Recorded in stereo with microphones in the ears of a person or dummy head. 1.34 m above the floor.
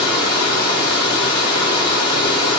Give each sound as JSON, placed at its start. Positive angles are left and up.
{"t": 0.0, "sound": "running water", "side_deg": 30, "distance_m": 1.1}